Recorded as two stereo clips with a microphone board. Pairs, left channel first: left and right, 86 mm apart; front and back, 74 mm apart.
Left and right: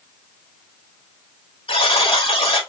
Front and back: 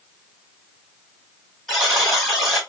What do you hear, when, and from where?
1.7 s a buzzer: 90° left, 3 m